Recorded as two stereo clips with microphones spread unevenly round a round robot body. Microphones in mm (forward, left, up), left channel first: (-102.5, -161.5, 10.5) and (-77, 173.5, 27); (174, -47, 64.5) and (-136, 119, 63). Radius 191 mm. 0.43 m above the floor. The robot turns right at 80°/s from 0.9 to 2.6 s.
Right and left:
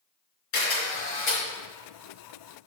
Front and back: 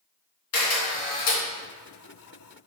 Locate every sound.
0.5 s a camera shutter: 60° right, 3.5 m; by 1.4 s 20° right, 3.5 m